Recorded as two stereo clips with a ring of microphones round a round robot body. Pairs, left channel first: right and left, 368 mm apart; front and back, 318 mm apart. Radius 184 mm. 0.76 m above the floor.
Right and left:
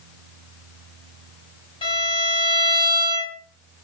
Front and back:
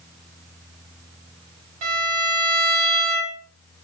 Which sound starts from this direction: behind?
A violin, at 1.8 s.